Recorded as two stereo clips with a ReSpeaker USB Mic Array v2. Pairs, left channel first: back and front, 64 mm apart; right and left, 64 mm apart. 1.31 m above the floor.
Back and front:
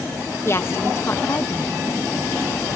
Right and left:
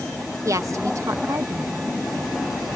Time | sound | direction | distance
0.5 | a woman speaking | 130° left | ?